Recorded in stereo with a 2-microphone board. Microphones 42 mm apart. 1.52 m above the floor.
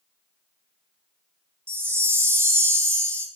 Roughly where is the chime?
Right.